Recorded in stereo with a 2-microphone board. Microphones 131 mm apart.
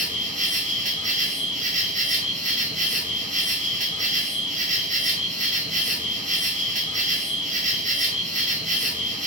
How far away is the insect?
About 0.7 m.